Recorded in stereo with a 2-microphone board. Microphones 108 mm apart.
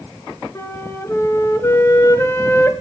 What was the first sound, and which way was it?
A flute, 25° left (ahead or behind).